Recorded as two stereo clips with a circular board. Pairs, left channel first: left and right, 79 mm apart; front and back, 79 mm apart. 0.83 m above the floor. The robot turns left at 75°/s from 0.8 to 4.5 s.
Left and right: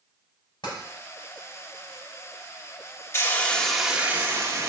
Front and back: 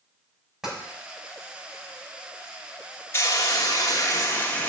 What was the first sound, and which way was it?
Tapping, 95° left.